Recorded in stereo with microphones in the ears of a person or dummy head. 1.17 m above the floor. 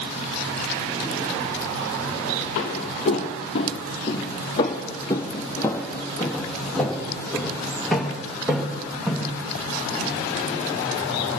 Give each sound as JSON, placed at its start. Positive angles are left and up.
{"t": 2.5, "sound": "footsteps", "side_deg": 45, "distance_m": 1.7}